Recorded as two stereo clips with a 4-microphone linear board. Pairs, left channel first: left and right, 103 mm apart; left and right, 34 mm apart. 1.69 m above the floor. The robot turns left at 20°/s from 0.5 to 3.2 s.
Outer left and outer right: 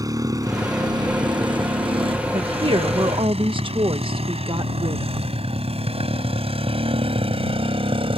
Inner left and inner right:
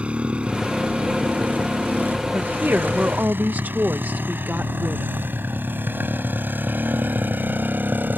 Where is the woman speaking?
70° right (ahead or behind); by 5.3 s 60° right (ahead or behind).